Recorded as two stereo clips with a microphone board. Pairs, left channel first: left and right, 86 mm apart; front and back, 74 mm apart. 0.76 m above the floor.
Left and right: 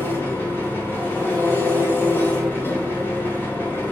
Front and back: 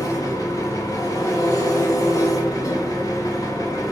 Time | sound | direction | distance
0.0 | an engine running | 30° left | 1.9 m